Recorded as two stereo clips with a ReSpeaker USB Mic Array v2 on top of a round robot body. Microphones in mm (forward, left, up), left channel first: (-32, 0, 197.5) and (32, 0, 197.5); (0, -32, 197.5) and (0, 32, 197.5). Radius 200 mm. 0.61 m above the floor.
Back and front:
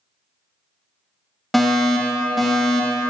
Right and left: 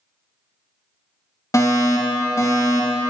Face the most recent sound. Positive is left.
turn(degrees=-90)